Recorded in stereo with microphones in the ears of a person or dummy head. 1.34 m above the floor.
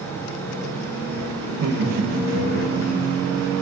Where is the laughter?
75° right (ahead or behind), 1.1 m.